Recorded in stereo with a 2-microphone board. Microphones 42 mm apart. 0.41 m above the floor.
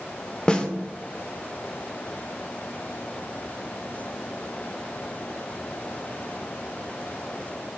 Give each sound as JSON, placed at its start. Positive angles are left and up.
{"t": 0.5, "sound": "a snare drum", "side_deg": 20, "distance_m": 0.7}